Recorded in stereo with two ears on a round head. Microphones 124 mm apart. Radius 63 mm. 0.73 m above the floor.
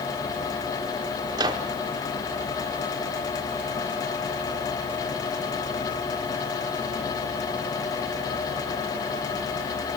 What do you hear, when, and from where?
1.3 s a microwave: 30° right (ahead or behind), 1.3 m